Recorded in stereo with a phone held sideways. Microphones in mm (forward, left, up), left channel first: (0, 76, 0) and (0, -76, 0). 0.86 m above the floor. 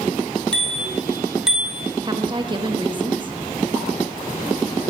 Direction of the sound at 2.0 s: 30° right (ahead or behind).